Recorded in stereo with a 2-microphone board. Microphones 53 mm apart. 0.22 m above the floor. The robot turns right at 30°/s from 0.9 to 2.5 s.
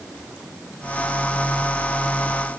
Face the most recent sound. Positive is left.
No sound to turn to.